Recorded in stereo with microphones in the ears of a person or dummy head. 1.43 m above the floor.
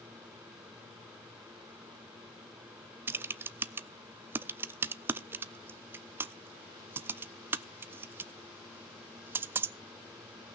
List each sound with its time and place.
3.1 s typing on a keyboard: 10° right (ahead or behind), 0.5 m